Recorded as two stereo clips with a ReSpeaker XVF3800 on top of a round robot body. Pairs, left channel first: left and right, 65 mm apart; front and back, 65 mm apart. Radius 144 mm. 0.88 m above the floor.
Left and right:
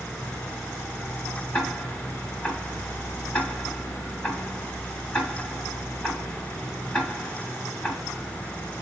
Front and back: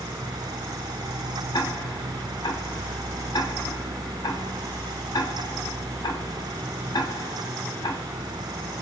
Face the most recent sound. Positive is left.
turn(degrees=15)